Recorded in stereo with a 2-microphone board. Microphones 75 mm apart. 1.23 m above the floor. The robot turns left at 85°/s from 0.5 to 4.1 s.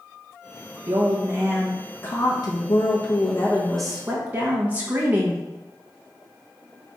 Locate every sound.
0.9 s a woman speaking: 105° right, 1.2 m; by 5.4 s 25° right, 1.2 m